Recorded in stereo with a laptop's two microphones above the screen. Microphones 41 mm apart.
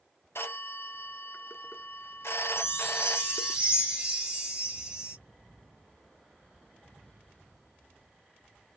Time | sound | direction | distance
0.3 | a phone ringing | 80° left | 0.5 m
2.6 | a chime | 20° right (ahead or behind) | 0.8 m